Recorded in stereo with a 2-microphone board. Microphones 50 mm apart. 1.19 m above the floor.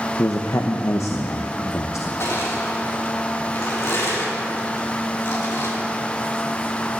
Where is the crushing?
60° left (ahead or behind), 4 m.